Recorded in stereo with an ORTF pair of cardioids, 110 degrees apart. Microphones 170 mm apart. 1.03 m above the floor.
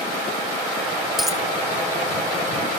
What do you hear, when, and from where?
1.2 s a dropped coin: straight ahead, 2.5 m